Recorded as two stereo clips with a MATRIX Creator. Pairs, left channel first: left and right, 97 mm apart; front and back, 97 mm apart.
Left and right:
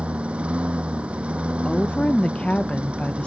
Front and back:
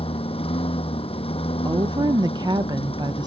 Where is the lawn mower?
10° right.